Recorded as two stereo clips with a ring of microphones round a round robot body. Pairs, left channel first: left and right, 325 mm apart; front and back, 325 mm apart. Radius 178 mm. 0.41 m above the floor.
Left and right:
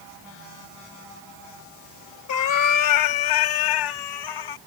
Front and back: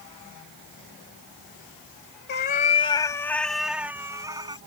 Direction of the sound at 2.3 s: 60° left.